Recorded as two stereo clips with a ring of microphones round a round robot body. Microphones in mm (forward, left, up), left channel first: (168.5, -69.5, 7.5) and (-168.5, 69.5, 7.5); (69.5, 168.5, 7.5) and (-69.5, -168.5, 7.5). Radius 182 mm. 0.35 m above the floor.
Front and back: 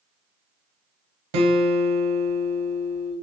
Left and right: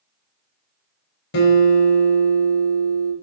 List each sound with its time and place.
1.3 s a guitar: 130° left, 1.0 m